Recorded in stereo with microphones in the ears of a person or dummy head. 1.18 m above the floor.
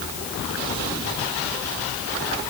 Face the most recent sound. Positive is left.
No sound to turn to.